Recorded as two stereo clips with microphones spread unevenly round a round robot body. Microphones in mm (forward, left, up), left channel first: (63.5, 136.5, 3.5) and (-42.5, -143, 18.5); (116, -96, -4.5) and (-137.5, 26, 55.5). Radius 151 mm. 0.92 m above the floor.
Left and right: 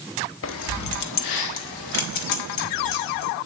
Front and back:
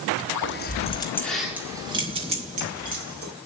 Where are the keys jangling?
20° left, 1.4 m; by 3.3 s 95° left, 4 m.